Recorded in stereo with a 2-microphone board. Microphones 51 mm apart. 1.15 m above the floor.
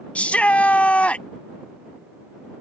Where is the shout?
25° left (ahead or behind).